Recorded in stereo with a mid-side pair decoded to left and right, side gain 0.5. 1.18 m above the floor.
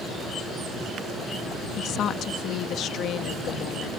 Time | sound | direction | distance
1.8 | a woman speaking | 65° left | ?